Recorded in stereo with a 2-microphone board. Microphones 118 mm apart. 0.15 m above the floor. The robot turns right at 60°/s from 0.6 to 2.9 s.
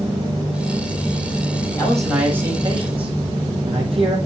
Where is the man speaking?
165° left, 5 m; by 4.2 s 130° right, 5 m.